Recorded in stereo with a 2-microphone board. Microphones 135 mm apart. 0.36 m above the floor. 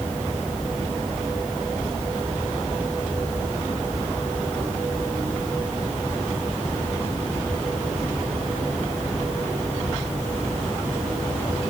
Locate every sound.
Only background noise.